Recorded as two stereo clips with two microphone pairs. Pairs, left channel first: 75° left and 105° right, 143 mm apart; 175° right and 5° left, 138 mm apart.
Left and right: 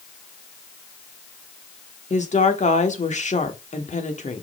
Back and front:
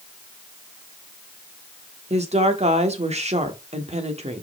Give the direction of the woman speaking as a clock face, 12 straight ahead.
11 o'clock.